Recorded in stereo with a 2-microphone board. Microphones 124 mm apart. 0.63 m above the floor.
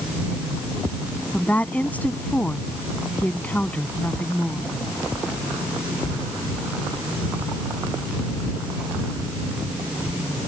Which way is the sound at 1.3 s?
10° left (ahead or behind).